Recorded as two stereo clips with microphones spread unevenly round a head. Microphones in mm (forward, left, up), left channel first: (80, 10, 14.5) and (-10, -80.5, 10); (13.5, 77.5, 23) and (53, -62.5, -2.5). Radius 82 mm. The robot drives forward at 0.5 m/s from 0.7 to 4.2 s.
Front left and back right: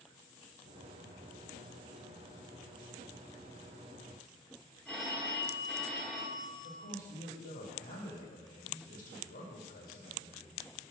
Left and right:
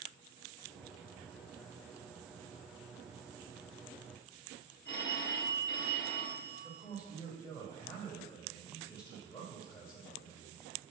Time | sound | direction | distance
4.8 | a phone ringing | 140° left | 2 m
6.6 | a man speaking | 50° left | 4 m